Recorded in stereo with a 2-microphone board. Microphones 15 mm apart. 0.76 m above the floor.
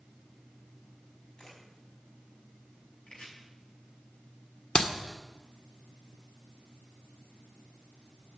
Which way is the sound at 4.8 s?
45° left (ahead or behind).